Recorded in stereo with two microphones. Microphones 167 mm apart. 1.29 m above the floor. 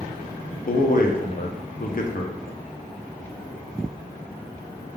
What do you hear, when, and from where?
0.7 s a man speaking: 55° left (ahead or behind), 0.6 m